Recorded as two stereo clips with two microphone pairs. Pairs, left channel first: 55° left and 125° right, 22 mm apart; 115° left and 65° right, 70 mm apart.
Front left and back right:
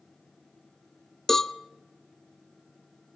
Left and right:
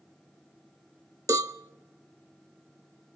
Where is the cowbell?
25° right, 0.5 m.